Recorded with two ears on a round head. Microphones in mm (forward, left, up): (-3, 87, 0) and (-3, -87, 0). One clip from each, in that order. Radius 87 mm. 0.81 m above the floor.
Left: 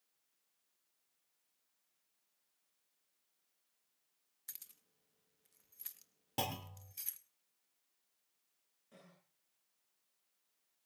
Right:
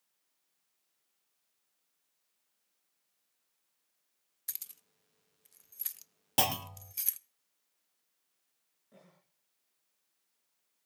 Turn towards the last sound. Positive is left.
turn(degrees=80)